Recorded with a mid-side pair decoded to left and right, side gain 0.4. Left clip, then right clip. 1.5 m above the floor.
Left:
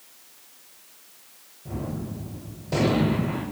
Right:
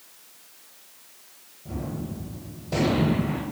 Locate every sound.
1.6 s a gunshot: 15° left, 0.8 m